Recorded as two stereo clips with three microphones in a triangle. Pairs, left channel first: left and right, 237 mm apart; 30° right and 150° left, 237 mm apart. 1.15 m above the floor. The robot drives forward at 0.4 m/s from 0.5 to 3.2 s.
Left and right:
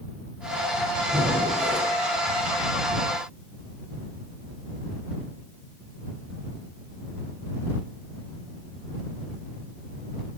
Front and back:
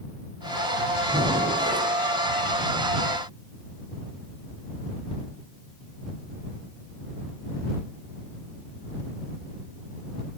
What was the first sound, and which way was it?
Breathing, 155° right.